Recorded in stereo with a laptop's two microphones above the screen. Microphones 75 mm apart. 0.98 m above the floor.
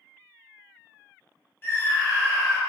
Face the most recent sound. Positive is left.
turn(degrees=30)  # may be behind; listen again after turning